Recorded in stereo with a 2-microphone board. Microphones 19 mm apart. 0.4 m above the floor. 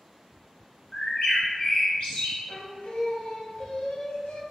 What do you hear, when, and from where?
0.9 s a bird: 50° left (ahead or behind), 1.3 m
2.5 s singing: 80° left, 0.5 m